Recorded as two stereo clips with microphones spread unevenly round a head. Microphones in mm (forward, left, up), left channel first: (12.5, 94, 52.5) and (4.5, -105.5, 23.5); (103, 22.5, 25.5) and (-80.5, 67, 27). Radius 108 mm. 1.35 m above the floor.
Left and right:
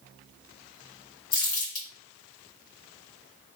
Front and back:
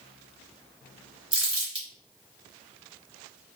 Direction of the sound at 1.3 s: 105° left.